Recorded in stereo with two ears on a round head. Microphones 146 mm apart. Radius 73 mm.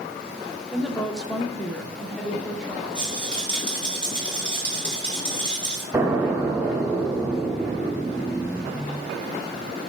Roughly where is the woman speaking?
Centre.